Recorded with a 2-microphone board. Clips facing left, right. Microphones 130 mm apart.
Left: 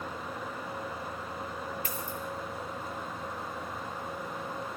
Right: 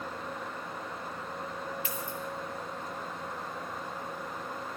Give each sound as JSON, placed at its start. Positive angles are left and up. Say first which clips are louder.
{"t": 1.9, "sound": "a dropped coin", "louder": "even", "side_deg": 45, "distance_m": 4.5}